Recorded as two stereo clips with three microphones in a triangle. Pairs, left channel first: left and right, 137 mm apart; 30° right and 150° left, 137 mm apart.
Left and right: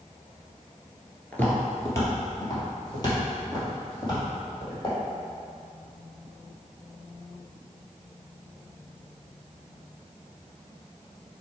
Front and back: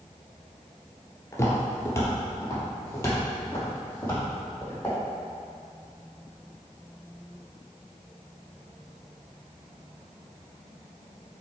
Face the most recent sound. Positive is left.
turn(degrees=40)